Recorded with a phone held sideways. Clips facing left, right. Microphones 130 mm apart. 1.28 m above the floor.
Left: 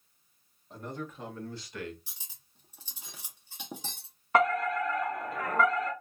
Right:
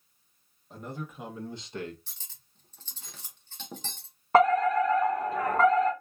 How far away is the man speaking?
About 1.3 m.